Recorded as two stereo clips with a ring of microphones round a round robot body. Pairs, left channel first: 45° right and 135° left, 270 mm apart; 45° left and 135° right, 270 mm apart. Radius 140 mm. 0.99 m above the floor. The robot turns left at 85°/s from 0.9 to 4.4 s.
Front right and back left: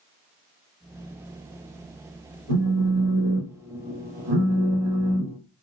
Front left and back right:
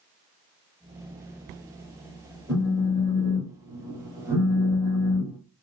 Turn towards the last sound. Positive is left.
turn(degrees=165)